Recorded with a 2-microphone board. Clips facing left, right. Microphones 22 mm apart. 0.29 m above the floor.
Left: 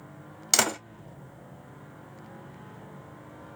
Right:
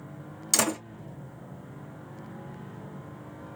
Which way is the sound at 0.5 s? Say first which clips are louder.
Left 2 dB; 35° left (ahead or behind).